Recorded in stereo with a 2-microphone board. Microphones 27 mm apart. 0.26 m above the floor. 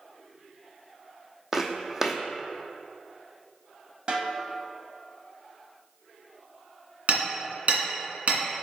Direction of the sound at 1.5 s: 15° right (ahead or behind).